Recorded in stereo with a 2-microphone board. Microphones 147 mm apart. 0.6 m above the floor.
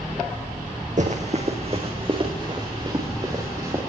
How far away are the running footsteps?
About 2.5 m.